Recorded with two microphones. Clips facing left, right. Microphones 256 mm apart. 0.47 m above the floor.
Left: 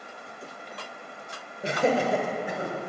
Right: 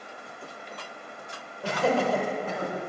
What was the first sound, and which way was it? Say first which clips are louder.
Laughter: left 1 dB; 25° left (ahead or behind).